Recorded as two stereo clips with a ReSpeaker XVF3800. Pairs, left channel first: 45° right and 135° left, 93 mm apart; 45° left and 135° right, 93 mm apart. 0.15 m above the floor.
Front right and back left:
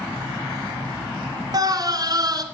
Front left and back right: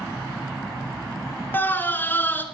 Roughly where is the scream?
Left.